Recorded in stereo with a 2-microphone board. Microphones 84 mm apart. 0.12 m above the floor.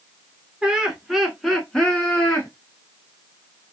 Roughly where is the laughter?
Centre.